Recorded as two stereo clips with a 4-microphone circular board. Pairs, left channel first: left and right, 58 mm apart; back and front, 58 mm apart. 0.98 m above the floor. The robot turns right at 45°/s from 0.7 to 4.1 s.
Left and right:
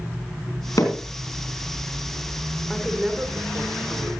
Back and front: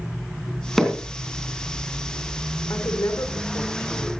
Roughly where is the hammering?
Left.